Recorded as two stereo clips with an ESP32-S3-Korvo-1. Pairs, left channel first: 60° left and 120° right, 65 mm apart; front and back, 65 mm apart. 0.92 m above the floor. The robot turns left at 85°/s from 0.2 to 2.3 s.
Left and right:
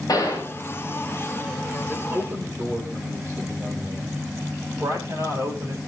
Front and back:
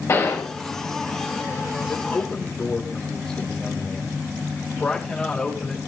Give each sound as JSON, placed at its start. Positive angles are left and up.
{"t": 0.1, "sound": "a gunshot", "azimuth_deg": 45, "distance_m": 5.0}
{"t": 1.9, "sound": "a man speaking", "azimuth_deg": -40, "distance_m": 4.5}